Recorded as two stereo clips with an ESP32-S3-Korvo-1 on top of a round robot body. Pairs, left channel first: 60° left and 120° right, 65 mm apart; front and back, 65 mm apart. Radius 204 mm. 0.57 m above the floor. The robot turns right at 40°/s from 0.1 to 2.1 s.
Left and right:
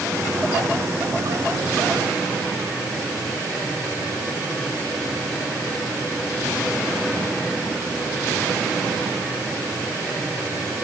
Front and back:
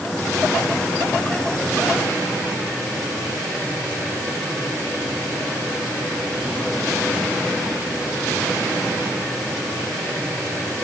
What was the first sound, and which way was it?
Only background noise.